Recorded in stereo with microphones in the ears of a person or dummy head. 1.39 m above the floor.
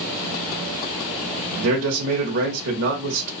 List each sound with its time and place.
1.6 s a man speaking: 85° right, 0.8 m